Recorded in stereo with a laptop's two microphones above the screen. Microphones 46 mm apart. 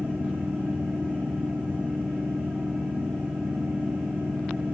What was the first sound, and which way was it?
A fan, 50° right (ahead or behind).